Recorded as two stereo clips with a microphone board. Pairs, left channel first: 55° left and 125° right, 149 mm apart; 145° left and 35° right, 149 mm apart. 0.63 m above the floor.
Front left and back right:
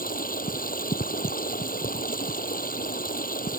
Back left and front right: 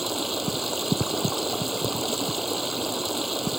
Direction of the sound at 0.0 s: 55° left.